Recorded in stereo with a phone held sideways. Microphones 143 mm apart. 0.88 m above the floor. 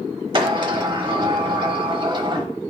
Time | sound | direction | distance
0.3 | a sliding door | 40° right (ahead or behind) | 0.9 m